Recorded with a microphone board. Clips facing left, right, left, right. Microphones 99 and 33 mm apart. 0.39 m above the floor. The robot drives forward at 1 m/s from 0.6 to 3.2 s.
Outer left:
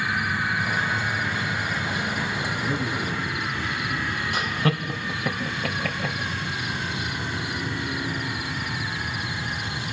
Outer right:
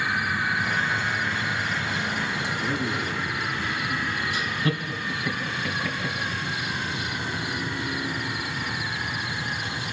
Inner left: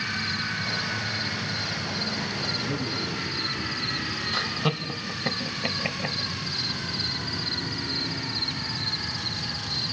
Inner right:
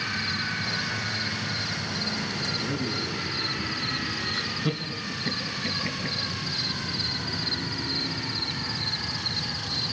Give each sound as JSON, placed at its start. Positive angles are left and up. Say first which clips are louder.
{"t": 2.6, "sound": "a man speaking", "louder": "even, even", "side_deg": -5, "distance_m": 5.0}
{"t": 4.3, "sound": "laughter", "louder": "outer left 5 dB, inner left 2 dB", "side_deg": 65, "distance_m": 2.5}